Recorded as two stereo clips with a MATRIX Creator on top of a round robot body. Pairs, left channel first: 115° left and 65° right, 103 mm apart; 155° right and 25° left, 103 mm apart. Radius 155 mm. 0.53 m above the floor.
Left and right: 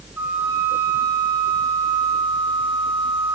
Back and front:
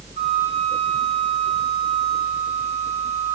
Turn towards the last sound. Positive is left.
turn(degrees=5)